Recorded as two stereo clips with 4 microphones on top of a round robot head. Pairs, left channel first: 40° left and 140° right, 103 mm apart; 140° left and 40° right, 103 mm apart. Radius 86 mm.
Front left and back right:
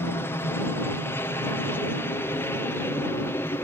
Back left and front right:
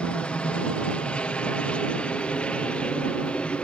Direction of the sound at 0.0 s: 75° left.